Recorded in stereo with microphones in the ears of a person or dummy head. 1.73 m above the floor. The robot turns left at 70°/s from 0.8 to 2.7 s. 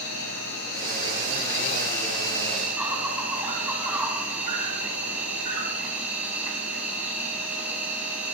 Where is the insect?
120° left, 4 m; by 8.3 s 10° right, 4 m.